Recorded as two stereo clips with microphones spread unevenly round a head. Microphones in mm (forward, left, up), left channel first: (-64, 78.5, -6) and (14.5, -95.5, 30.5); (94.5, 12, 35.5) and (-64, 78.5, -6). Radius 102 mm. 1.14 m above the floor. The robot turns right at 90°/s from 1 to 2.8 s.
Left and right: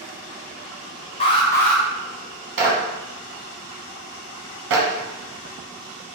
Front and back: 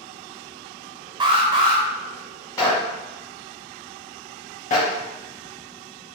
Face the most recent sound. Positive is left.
turn(degrees=-80)